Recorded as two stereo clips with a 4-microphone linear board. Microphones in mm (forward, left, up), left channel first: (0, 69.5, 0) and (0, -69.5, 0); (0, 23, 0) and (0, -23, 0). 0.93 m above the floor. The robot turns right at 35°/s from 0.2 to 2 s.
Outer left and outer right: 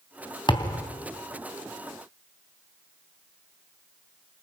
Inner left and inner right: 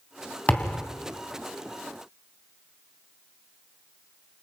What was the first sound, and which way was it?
A thud, 35° left (ahead or behind).